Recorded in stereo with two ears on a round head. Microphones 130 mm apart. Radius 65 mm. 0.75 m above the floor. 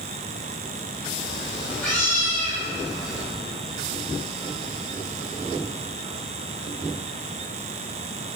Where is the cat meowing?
5° left (ahead or behind), 1.9 m; by 3.2 s 30° left (ahead or behind), 1.2 m.